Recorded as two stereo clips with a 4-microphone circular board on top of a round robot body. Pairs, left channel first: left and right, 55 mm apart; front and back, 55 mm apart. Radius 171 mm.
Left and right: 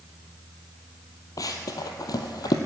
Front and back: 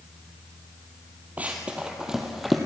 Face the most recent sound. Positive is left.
turn(degrees=90)